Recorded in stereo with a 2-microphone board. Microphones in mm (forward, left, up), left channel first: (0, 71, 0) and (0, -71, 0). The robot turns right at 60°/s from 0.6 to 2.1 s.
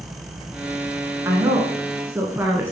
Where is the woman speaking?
25° right (ahead or behind), 1.1 m; by 2.7 s 15° right (ahead or behind), 1.1 m.